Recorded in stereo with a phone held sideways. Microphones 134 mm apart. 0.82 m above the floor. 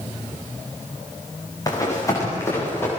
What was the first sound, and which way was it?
Running footsteps, 25° left (ahead or behind).